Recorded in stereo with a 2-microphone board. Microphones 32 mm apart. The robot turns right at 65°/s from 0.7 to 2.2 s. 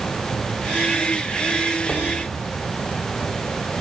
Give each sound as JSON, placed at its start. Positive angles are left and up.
{"t": 1.9, "sound": "knocking", "side_deg": 15, "distance_m": 2.5}